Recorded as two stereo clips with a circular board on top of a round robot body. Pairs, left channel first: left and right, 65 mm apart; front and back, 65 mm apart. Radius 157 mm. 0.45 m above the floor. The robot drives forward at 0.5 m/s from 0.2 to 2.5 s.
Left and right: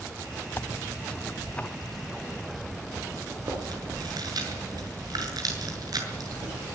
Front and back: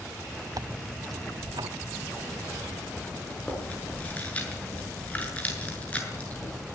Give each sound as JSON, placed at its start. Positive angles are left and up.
{"t": 0.6, "sound": "tearing paper", "azimuth_deg": 150, "distance_m": 0.7}
{"t": 3.3, "sound": "chewing", "azimuth_deg": -70, "distance_m": 6.5}